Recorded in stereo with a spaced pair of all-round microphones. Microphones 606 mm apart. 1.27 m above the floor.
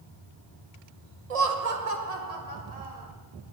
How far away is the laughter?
About 1.0 m.